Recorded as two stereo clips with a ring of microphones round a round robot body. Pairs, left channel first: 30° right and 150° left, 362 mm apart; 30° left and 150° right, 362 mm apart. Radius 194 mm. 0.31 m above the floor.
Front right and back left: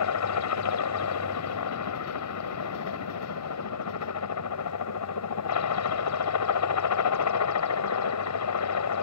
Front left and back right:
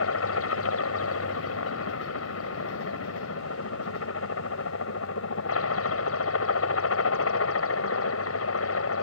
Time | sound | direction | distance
0.0 | a helicopter | 5° right | ?